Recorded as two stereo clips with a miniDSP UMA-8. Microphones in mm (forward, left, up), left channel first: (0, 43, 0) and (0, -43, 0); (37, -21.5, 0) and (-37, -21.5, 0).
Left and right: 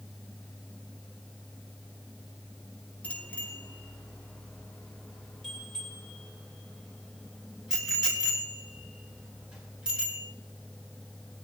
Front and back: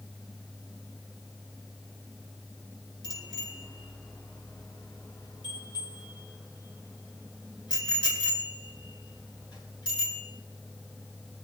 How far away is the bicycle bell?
About 4.5 m.